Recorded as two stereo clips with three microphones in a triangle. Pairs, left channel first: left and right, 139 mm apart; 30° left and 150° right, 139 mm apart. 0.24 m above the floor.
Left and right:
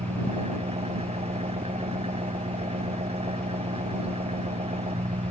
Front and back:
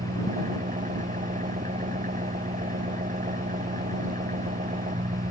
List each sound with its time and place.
0.0 s an engine running: 135° right